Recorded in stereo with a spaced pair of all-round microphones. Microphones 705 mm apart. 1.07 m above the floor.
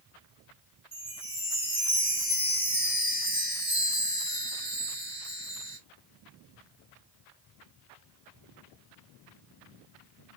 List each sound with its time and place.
0.9 s a chime: 20° left (ahead or behind), 2.5 m